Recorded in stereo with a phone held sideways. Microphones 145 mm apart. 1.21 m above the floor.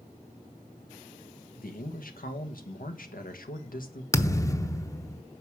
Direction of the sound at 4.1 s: 20° left (ahead or behind).